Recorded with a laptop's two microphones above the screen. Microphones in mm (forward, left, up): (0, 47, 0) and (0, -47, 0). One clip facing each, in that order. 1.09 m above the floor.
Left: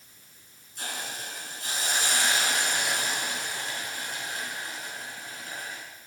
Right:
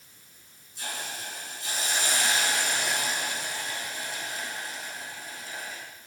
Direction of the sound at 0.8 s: 55° left (ahead or behind).